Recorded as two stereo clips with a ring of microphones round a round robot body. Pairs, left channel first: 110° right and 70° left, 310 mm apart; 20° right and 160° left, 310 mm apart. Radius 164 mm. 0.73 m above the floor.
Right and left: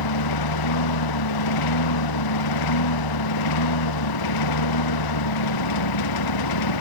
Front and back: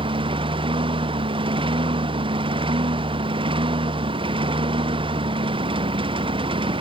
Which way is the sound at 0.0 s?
130° right.